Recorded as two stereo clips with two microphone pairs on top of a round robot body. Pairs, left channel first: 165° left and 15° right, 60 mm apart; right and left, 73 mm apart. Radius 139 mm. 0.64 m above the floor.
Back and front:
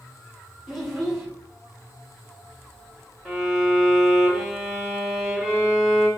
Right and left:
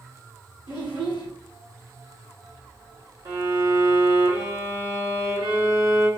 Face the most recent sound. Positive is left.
turn(degrees=75)